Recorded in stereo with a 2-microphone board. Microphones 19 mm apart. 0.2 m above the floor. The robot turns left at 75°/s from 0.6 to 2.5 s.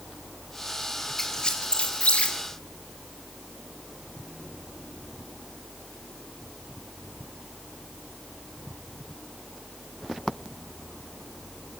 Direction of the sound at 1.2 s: 20° left (ahead or behind).